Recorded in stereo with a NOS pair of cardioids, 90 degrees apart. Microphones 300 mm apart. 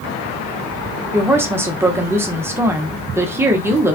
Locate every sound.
1.1 s a woman speaking: 10° right, 0.7 m